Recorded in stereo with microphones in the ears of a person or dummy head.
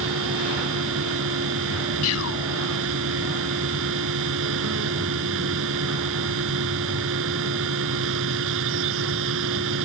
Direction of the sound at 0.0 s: 65° right (ahead or behind).